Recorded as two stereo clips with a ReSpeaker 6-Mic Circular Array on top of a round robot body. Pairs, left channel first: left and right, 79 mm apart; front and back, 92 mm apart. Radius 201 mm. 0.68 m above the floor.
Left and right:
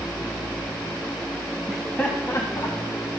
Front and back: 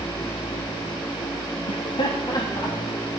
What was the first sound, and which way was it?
Laughter, 5° right.